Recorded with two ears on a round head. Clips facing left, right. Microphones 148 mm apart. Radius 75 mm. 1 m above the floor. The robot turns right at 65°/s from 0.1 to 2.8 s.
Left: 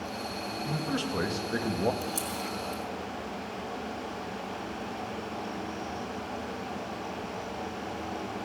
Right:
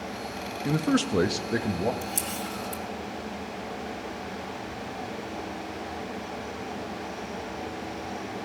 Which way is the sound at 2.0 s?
10° right (ahead or behind).